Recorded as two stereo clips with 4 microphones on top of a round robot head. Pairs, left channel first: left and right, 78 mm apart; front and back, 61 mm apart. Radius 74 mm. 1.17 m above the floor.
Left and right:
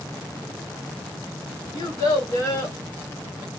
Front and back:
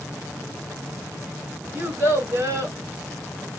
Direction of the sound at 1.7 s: 120° left.